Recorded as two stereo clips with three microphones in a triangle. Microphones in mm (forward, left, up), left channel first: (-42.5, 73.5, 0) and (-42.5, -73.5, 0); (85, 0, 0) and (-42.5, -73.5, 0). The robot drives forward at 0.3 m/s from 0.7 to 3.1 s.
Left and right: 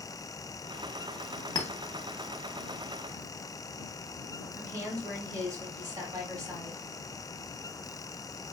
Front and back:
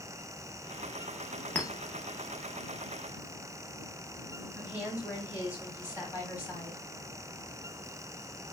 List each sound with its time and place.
1.6 s a clink: 95° left, 0.6 m; by 1.7 s 105° left, 0.6 m
4.5 s a woman speaking: 90° right, 1.6 m